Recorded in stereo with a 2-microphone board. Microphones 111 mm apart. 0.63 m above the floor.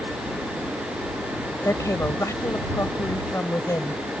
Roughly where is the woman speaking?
Left.